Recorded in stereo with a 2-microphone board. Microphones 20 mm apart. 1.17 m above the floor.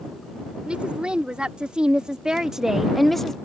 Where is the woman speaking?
65° right (ahead or behind); by 3.4 s 25° left (ahead or behind).